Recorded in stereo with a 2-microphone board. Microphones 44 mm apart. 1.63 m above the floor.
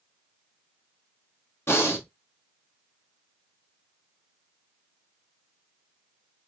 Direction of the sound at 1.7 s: 60° left (ahead or behind).